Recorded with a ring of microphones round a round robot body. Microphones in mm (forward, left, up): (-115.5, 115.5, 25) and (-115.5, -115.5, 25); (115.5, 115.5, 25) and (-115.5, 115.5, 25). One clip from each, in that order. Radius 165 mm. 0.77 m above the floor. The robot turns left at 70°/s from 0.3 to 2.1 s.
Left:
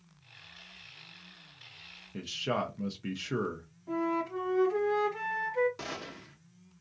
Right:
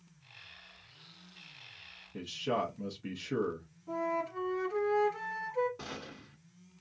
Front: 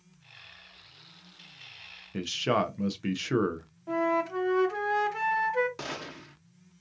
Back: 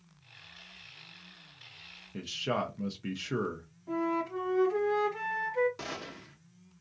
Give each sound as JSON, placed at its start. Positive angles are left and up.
{"t": 2.1, "sound": "a man speaking", "azimuth_deg": 30, "distance_m": 0.5}
{"t": 3.9, "sound": "a flute", "azimuth_deg": 15, "distance_m": 0.7}
{"t": 5.8, "sound": "a gunshot", "azimuth_deg": 60, "distance_m": 1.0}